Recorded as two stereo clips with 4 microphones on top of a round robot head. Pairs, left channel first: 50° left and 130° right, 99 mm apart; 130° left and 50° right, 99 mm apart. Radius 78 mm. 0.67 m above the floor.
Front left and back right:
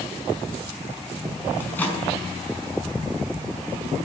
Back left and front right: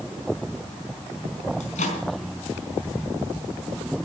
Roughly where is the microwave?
Behind left.